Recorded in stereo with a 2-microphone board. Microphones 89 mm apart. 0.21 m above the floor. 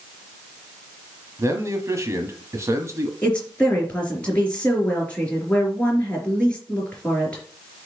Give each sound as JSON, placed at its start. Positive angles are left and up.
{"t": 1.4, "sound": "a man speaking", "side_deg": -35, "distance_m": 1.5}
{"t": 3.2, "sound": "a woman speaking", "side_deg": 15, "distance_m": 4.0}